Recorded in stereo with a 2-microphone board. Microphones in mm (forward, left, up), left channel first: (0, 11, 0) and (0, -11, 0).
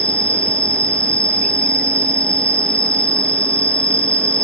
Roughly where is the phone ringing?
No phone ringing in this recording.